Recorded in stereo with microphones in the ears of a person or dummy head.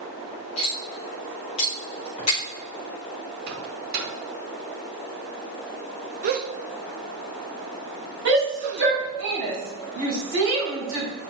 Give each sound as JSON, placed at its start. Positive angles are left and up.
{"t": 0.6, "sound": "cutlery clinking", "side_deg": 25, "distance_m": 1.4}
{"t": 3.5, "sound": "a microwave", "side_deg": -50, "distance_m": 2.0}
{"t": 6.2, "sound": "a gasp", "side_deg": -50, "distance_m": 0.8}
{"t": 8.2, "sound": "a shout", "side_deg": -70, "distance_m": 3.5}